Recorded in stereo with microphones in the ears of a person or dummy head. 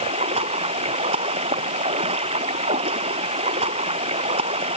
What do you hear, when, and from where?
0.0 s running water: 30° right (ahead or behind)